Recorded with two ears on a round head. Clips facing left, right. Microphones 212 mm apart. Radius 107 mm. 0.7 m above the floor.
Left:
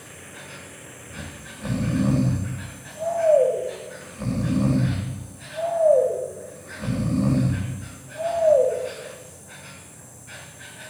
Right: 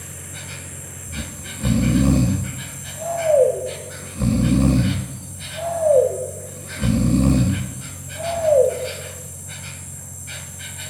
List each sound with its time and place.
0.0 s an insect: 45° right (ahead or behind), 1.4 m
1.1 s snoring: 45° right (ahead or behind), 1.1 m